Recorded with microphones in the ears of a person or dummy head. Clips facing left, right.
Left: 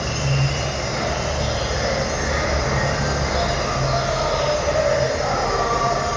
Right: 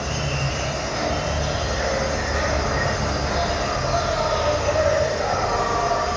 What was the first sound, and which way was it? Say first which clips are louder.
An insect: left 3 dB; 35° left (ahead or behind).